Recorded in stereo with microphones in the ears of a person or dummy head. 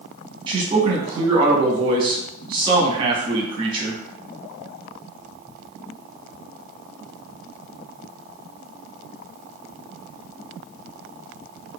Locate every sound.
0.5 s a man speaking: 30° right (ahead or behind), 1.0 m